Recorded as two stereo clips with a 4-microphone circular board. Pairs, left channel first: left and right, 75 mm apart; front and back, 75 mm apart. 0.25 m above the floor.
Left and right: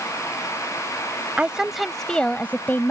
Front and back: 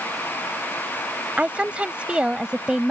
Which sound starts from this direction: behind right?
A woman speaking, at 1.4 s.